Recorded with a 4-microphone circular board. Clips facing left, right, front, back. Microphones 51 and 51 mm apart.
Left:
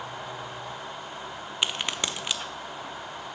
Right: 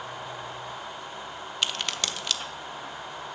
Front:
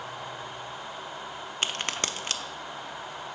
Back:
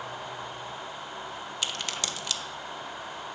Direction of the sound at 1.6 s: 25° left.